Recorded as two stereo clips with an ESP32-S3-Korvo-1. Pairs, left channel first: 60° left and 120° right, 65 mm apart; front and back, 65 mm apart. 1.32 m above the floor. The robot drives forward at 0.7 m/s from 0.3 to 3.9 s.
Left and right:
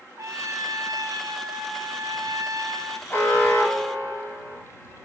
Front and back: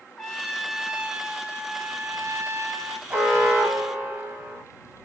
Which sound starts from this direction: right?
A trumpet, at 0.2 s.